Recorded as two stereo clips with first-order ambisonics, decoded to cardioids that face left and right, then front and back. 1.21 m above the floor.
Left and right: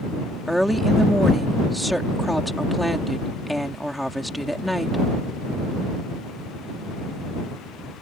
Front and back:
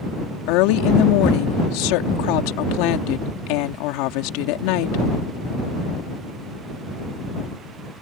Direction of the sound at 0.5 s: Straight ahead.